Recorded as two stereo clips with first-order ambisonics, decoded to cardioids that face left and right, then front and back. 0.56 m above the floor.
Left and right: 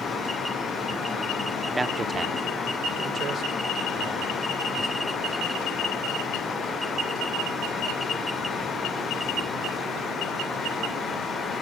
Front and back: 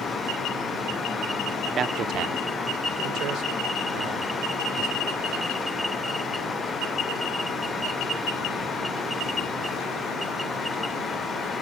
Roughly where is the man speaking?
Behind.